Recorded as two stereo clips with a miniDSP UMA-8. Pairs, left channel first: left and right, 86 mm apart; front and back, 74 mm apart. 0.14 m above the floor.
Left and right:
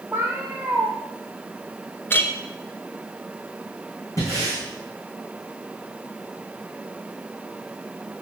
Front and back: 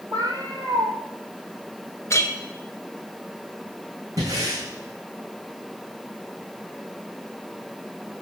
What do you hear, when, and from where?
0.1 s a cat meowing: 160° right, 2 m
2.1 s a clink: 35° left, 0.9 m
4.2 s breathing: 140° left, 4 m